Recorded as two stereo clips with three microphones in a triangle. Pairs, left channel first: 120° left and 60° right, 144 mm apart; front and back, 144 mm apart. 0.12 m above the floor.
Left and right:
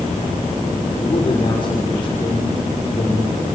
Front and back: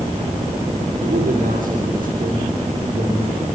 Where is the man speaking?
175° left, 6.5 m.